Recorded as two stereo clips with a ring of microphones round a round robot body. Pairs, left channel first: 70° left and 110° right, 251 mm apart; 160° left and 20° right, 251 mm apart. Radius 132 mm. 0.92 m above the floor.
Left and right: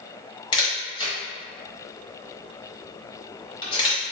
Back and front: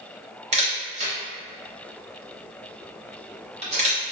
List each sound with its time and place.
0.5 s a camera shutter: 15° left, 0.8 m